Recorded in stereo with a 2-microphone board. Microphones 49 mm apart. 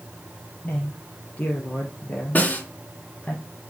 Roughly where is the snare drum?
Left.